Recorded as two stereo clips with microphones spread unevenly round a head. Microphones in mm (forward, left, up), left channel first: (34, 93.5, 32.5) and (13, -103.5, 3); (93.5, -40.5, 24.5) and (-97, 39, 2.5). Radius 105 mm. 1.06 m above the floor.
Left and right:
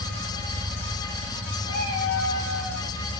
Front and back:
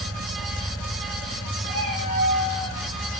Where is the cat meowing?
110° left, 7.5 m; by 2.9 s 100° left, 7.5 m.